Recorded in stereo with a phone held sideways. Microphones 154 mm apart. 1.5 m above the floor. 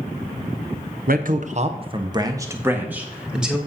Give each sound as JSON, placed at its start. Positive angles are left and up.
{"t": 1.1, "sound": "a man speaking", "side_deg": -70, "distance_m": 1.0}